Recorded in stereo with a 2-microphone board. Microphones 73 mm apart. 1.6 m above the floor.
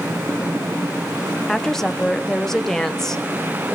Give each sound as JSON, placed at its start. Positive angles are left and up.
{"t": 1.5, "sound": "a woman speaking", "side_deg": 10, "distance_m": 0.8}